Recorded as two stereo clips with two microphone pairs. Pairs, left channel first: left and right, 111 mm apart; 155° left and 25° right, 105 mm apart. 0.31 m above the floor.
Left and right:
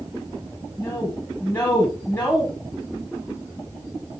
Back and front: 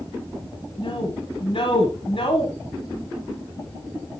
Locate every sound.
0.8 s a woman speaking: 160° left, 2 m